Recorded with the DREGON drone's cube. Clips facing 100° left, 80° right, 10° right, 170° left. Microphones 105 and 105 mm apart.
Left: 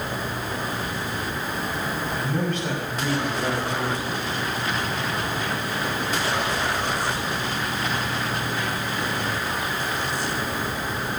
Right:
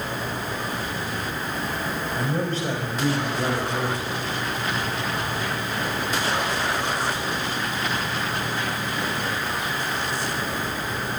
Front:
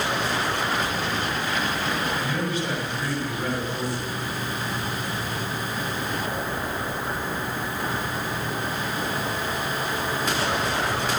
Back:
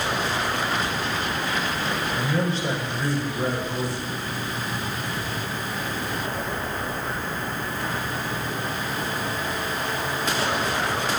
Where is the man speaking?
135° right, 4.5 m.